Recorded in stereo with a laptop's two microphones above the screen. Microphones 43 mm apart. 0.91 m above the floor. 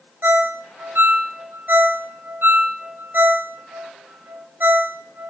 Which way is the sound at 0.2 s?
55° right (ahead or behind).